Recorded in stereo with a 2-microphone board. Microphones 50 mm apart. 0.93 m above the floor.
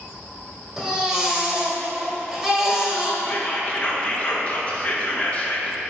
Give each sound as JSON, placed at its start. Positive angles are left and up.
{"t": 0.8, "sound": "a baby crying", "side_deg": -5, "distance_m": 1.9}
{"t": 3.2, "sound": "whispering", "side_deg": 25, "distance_m": 1.2}